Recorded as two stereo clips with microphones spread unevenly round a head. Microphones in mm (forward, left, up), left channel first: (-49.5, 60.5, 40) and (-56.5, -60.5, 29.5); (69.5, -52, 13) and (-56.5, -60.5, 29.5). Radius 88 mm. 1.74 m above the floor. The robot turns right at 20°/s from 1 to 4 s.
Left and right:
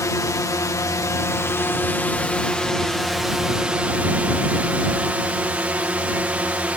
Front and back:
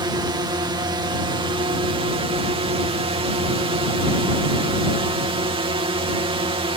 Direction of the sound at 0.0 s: 140° left.